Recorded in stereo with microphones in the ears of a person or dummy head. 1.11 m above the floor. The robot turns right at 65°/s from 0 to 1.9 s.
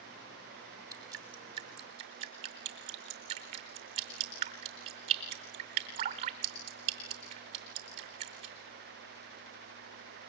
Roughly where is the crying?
No crying in this recording.